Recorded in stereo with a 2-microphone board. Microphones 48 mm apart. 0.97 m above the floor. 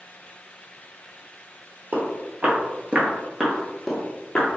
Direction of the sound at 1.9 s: 45° right (ahead or behind).